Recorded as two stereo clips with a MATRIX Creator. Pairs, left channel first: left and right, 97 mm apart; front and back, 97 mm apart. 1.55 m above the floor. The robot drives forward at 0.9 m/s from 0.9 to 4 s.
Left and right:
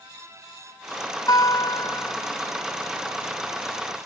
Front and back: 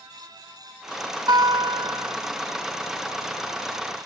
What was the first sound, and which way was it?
A guitar, 135° left.